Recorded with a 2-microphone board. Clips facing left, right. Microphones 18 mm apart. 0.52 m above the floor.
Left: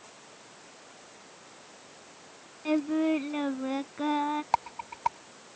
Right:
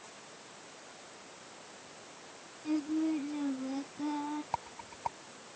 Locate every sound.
2.6 s singing: 60° left (ahead or behind)
4.5 s a rattle: 50° left (ahead or behind)